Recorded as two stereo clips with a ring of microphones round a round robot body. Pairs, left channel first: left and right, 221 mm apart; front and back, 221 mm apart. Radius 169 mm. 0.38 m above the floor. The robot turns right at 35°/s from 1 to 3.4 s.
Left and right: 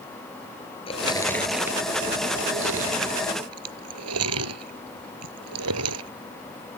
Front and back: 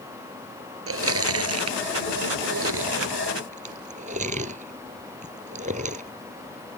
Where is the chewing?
165° left; by 6.1 s 115° right.